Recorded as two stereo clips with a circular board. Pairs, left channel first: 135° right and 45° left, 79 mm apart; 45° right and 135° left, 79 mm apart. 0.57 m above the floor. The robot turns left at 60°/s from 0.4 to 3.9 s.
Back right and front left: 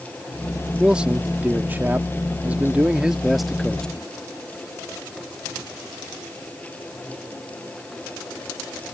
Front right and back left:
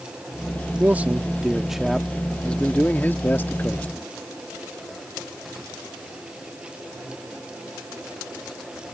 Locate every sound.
0.8 s a man speaking: 115° left; by 4.1 s 70° right